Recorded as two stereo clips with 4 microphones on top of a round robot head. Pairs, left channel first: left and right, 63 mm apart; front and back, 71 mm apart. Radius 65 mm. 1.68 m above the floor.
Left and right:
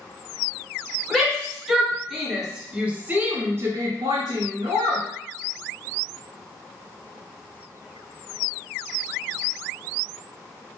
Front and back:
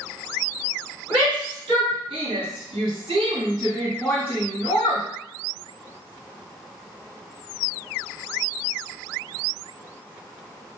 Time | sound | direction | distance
1.1 | a shout | straight behind | 1.5 m